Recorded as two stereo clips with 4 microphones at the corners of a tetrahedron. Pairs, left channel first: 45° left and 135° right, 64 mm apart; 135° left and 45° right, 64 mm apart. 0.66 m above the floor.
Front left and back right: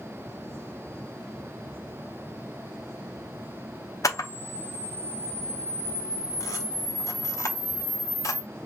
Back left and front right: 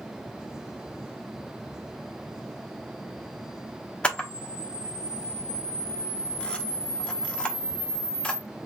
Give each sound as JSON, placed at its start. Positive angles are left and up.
{"t": 4.0, "sound": "a camera shutter", "azimuth_deg": 65, "distance_m": 0.8}